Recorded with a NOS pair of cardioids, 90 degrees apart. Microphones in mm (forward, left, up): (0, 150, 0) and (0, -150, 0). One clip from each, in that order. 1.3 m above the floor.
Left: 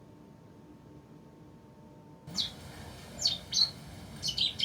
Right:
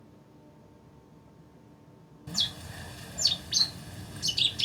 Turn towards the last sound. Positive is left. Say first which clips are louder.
# right 5 dB
turn(degrees=-35)